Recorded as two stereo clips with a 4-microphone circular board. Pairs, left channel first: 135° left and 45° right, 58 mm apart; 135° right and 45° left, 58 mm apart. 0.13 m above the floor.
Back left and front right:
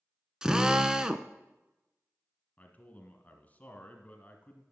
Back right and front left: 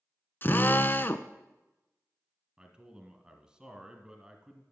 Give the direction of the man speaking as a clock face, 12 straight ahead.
8 o'clock.